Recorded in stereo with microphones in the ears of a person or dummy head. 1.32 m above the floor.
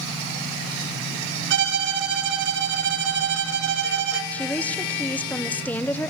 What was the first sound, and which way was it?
A violin, 70° right (ahead or behind).